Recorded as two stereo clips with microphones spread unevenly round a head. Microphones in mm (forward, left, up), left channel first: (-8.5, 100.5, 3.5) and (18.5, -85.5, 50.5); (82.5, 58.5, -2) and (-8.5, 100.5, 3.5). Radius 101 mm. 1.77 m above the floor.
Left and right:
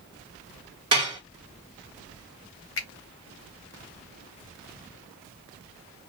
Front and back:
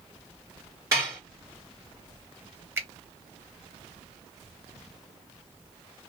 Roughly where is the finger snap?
Left.